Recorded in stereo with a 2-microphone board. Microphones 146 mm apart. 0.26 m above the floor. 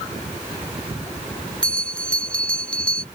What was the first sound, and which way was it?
A bell, 5° left (ahead or behind).